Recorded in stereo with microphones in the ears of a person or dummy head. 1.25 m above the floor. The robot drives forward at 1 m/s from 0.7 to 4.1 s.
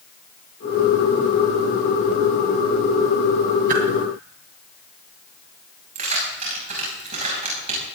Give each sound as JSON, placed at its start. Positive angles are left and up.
{"t": 3.7, "sound": "a whoosh", "side_deg": -50, "distance_m": 2.5}
{"t": 6.0, "sound": "keys jangling", "side_deg": -35, "distance_m": 7.0}